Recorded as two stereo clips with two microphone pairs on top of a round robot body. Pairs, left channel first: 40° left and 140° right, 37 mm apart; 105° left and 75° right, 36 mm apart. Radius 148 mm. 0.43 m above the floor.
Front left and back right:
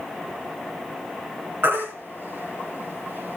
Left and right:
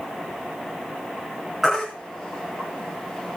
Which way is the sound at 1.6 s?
155° right.